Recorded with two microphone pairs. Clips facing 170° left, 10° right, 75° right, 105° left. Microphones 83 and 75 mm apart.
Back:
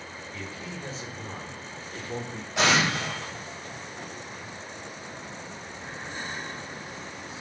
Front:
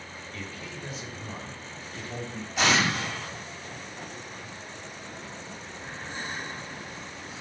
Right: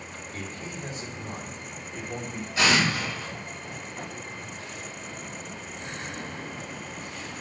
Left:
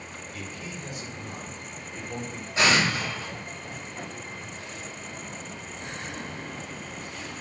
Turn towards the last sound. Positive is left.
turn(degrees=170)